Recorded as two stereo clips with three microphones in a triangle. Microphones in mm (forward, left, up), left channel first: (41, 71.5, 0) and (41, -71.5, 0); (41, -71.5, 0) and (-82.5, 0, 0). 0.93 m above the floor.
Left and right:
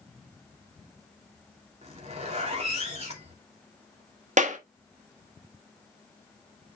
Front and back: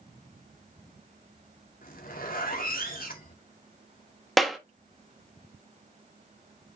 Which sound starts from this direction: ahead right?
A zipper, at 1.8 s.